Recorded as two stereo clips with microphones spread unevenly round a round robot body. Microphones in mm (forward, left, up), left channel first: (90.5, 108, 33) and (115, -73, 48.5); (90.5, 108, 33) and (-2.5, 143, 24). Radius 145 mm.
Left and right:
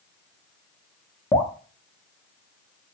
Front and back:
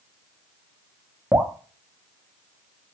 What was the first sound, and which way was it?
Dripping, 120° left.